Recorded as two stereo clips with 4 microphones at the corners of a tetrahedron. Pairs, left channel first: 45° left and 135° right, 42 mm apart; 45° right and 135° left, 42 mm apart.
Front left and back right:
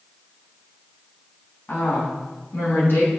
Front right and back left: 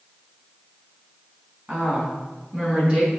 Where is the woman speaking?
85° left, 3.5 m; by 3.1 s 75° left, 5 m.